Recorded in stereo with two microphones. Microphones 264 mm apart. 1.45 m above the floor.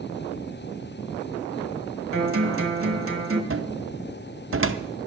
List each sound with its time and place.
2.1 s a guitar: 55° right (ahead or behind), 1.4 m
3.5 s a cupboard door: 55° right (ahead or behind), 0.6 m